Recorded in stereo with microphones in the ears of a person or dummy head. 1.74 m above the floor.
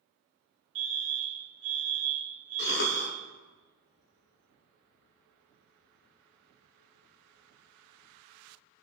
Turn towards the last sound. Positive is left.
turn(degrees=65)  # may be behind; listen again after turning